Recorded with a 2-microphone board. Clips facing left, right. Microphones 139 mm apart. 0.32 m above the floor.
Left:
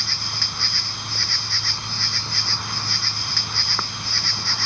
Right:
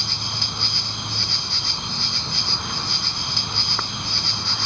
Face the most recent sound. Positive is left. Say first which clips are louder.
# right 2 dB
turn(degrees=-20)  # may be behind; listen again after turning